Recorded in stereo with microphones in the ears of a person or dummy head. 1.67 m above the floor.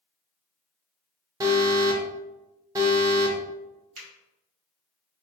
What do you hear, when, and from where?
1.4 s an alarm: 20° right (ahead or behind), 0.5 m
4.0 s a finger snap: 40° right (ahead or behind), 1.6 m